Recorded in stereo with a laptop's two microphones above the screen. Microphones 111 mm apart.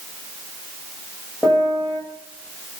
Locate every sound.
1.4 s a piano: 5° left (ahead or behind), 1.7 m